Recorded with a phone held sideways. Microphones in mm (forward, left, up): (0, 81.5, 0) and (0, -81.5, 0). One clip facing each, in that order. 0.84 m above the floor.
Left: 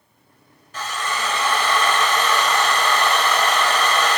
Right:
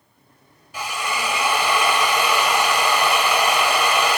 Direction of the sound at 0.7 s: 10° right (ahead or behind).